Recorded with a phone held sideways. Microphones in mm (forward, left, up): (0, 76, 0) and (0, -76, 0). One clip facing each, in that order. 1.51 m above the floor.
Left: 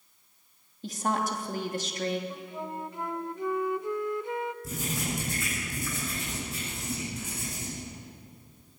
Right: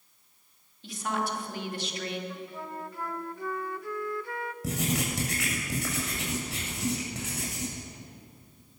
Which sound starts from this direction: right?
Writing, at 4.6 s.